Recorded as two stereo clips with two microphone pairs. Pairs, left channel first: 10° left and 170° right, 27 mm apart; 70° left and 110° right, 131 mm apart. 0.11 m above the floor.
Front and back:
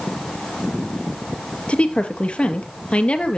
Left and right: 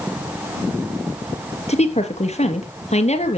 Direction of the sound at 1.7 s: 50° left.